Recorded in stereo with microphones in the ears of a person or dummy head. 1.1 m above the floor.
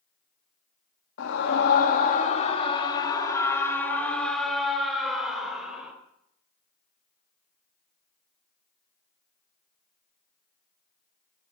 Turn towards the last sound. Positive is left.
turn(degrees=-5)  # may be behind; listen again after turning